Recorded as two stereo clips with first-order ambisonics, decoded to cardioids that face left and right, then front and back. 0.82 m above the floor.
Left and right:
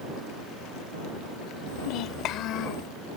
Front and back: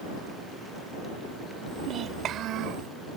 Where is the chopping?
No chopping in this recording.